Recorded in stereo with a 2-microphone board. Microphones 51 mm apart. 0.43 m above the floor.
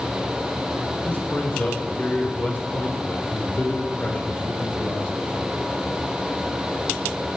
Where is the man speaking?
30° left (ahead or behind), 1.4 m.